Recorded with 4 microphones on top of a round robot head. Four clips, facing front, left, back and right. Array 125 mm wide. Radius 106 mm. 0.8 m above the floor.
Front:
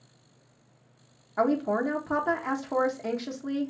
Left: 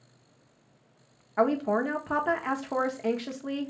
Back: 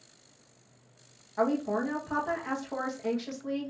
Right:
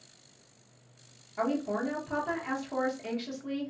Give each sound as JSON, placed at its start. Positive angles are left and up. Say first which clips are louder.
{"t": 1.4, "sound": "a woman speaking", "louder": "left 5 dB, front 3 dB", "azimuth_deg": 55, "distance_m": 1.1}